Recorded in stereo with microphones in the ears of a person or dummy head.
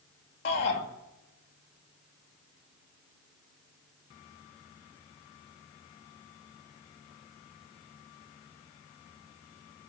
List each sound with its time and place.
0.5 s a shout: 45° left (ahead or behind), 2.5 m